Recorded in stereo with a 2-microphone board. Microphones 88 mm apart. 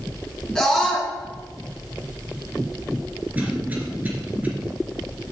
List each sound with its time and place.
0.6 s a scream: 10° left (ahead or behind), 1.2 m
3.4 s a cough: 20° right (ahead or behind), 2 m